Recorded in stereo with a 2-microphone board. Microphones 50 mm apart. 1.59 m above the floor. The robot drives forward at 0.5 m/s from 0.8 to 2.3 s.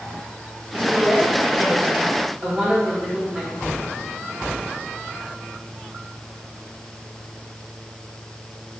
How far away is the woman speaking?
About 2.5 m.